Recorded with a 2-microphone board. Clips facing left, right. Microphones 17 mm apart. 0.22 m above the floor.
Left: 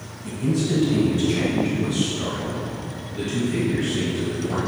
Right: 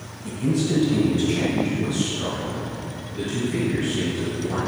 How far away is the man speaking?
About 1.7 m.